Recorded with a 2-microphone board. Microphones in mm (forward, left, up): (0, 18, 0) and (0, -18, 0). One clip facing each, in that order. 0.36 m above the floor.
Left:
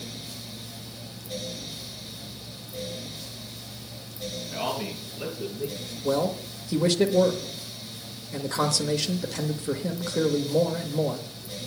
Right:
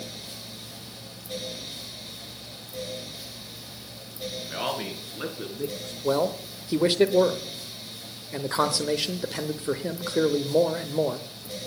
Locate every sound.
4.5 s a man speaking: 75° right (ahead or behind), 4.5 m; by 5.9 s 70° right (ahead or behind), 4 m
6.0 s a man speaking: 25° right (ahead or behind), 0.8 m